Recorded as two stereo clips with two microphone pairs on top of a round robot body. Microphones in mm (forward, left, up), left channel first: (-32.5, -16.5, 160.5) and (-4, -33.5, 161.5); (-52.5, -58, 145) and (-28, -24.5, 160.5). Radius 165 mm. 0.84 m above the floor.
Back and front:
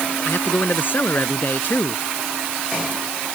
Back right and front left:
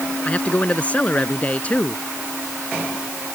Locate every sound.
0.2 s a man speaking: 175° left